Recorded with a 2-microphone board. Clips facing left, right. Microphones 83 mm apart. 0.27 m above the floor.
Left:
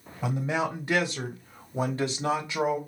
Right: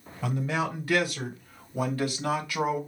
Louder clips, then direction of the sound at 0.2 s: Left 1 dB; 20° left (ahead or behind).